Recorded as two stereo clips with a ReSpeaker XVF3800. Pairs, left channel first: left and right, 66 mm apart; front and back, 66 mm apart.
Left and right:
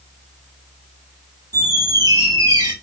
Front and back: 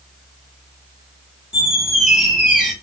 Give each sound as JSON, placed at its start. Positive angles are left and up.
{"t": 1.5, "sound": "a squeak", "azimuth_deg": -100, "distance_m": 1.0}